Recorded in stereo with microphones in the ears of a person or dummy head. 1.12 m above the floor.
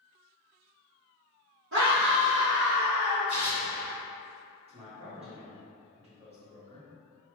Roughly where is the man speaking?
Right.